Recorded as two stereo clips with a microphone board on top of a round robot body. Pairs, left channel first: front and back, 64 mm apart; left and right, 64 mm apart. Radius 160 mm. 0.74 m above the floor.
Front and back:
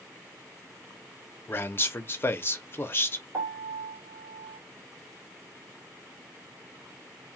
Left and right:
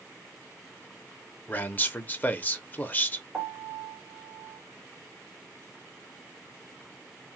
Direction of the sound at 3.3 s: 160° right.